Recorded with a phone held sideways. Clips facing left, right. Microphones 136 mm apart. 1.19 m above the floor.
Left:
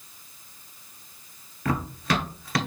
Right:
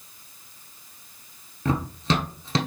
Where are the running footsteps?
25° right (ahead or behind), 1.2 m.